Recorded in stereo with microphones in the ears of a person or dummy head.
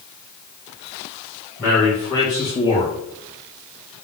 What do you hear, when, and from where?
1.6 s a man speaking: centre (ahead or behind), 1.0 m; by 4.0 s 45° left (ahead or behind), 0.7 m